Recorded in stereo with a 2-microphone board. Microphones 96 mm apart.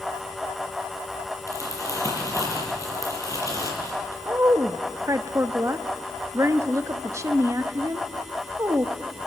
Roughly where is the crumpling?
Left.